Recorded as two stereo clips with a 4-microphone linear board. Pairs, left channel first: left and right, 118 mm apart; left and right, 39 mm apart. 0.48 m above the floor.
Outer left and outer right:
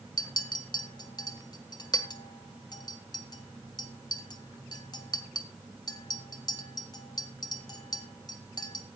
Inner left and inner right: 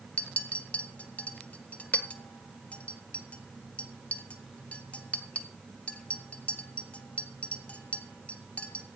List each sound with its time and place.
0.2 s a clink: 35° left (ahead or behind), 1.7 m